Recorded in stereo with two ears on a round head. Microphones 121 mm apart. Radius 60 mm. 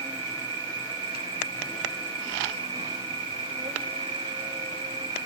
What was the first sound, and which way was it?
An insect, 40° right (ahead or behind).